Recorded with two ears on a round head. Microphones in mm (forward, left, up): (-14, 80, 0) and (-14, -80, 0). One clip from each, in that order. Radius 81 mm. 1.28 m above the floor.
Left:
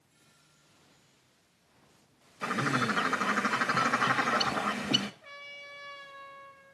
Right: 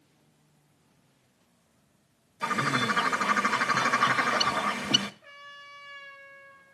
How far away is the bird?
About 0.9 m.